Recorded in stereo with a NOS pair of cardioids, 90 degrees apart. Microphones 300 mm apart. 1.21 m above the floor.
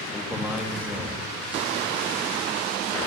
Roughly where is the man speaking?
Ahead.